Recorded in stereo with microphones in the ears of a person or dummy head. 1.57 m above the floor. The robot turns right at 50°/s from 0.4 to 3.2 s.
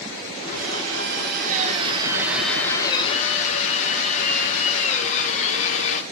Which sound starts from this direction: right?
A drill, at 0.5 s.